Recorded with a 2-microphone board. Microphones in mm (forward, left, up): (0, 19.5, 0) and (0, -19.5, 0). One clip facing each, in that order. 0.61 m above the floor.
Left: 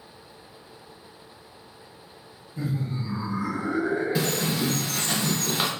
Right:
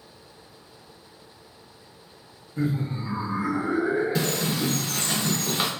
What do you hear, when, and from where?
2.6 s laughter: 50° right (ahead or behind), 0.9 m; by 4.8 s 5° left (ahead or behind), 1.3 m
4.2 s a bird: 10° left (ahead or behind), 0.7 m